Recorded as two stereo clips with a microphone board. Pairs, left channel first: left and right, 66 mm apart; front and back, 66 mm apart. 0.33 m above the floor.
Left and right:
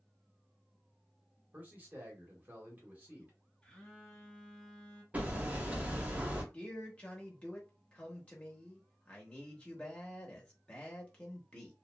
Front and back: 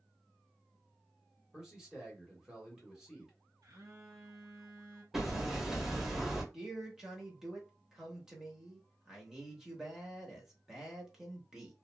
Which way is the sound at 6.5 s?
115° left.